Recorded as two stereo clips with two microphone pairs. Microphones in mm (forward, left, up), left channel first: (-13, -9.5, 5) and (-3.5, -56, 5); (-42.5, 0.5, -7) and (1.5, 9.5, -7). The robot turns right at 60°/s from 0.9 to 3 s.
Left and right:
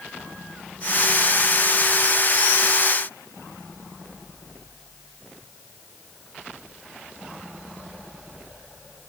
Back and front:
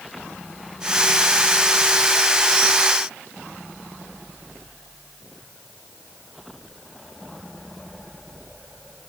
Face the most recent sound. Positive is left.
No sound to turn to.